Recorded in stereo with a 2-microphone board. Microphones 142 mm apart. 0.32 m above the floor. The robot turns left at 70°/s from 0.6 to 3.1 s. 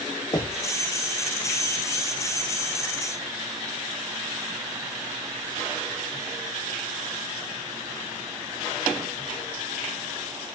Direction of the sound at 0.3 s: 30° left (ahead or behind).